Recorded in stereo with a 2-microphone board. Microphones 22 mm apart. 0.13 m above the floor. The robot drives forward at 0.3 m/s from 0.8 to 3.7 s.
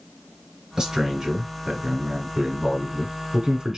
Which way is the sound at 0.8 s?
30° right (ahead or behind).